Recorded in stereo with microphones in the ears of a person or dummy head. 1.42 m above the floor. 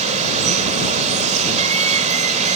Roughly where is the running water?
Right.